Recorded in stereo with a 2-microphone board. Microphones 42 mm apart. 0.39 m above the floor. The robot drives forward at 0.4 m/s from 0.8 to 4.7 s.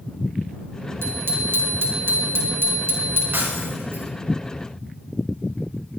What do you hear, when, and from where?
1.0 s a bicycle bell: 70° right (ahead or behind), 4.5 m; by 3.2 s 60° right (ahead or behind), 5 m
3.3 s breaking glass: 55° right (ahead or behind), 5 m; by 4.1 s 60° right (ahead or behind), 5 m